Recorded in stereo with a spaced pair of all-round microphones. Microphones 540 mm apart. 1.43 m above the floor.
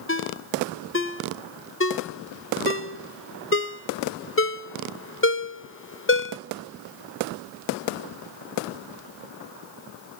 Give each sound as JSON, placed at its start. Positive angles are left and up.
{"t": 0.1, "sound": "a ringtone", "side_deg": 25, "distance_m": 0.6}